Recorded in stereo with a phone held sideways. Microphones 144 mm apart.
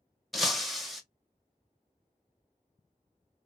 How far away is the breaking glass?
About 0.7 m.